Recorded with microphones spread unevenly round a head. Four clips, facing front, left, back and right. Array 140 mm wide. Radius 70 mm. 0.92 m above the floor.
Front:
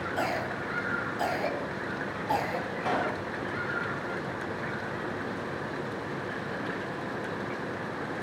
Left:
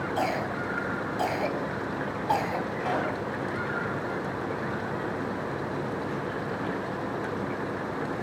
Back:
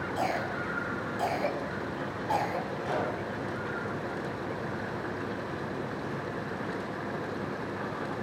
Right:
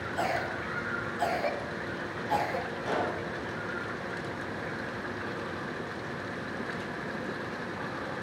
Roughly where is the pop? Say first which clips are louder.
Left 2 dB, front 4 dB; ahead left.